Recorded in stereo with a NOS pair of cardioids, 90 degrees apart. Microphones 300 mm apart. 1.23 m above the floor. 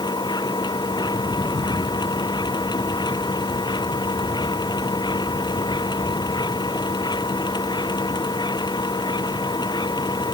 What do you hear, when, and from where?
0.0 s a machine running: 15° left